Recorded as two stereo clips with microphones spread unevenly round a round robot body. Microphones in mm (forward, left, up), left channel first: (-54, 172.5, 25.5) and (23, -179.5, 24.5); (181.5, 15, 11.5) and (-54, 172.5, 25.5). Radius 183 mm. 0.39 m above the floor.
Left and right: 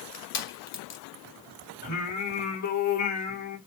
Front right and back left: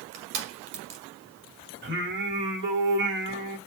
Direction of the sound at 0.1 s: 140° left.